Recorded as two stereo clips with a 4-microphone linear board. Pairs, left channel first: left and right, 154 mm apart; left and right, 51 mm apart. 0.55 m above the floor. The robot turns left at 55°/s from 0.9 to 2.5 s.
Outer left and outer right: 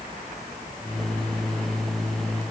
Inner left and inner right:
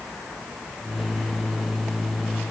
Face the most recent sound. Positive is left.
No sound to turn to.